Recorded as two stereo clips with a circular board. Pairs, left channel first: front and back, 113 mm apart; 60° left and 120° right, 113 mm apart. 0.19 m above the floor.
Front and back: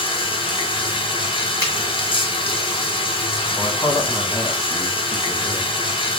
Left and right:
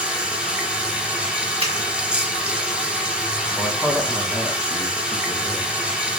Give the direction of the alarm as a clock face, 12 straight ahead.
I don't hear an alarm.